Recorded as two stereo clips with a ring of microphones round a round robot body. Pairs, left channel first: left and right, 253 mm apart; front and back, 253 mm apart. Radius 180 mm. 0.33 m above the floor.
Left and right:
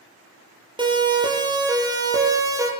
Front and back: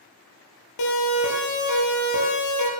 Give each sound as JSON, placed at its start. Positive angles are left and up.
{"t": 0.8, "sound": "a siren", "azimuth_deg": -20, "distance_m": 9.5}